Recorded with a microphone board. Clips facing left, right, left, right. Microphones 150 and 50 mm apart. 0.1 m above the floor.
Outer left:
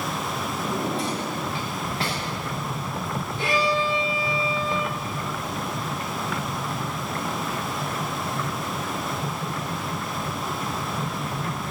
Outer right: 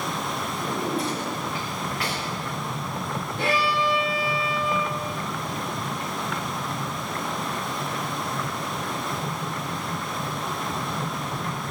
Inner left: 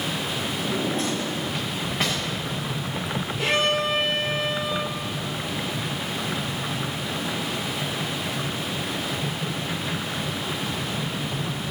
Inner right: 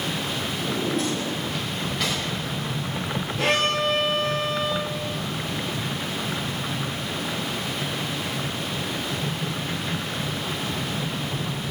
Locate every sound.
0.6 s a drawer: 30° left (ahead or behind), 6.5 m
3.4 s a violin: 60° right (ahead or behind), 3.5 m